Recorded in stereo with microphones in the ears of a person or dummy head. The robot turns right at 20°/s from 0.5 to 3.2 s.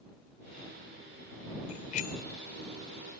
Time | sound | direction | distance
1.7 | a bicycle bell | 40° left (ahead or behind) | ?